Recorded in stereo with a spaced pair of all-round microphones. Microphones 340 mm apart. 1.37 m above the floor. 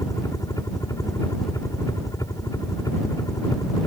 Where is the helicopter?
10° left (ahead or behind).